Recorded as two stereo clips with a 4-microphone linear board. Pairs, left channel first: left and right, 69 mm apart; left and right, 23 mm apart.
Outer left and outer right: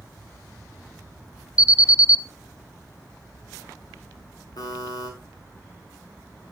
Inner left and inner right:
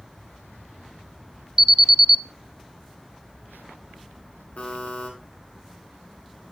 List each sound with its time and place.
1.6 s an alarm: 15° right (ahead or behind), 0.8 m
4.6 s a buzzer: 70° left (ahead or behind), 8 m